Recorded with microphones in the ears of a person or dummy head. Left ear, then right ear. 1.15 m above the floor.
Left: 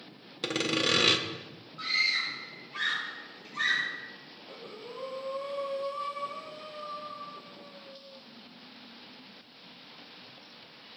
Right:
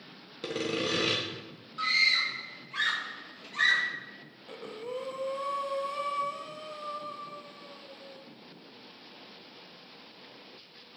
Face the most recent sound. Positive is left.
turn(degrees=-75)  # may be behind; listen again after turning